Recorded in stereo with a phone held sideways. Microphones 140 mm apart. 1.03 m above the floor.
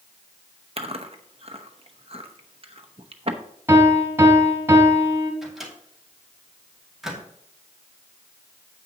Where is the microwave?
Centre (ahead or behind), 2.5 m.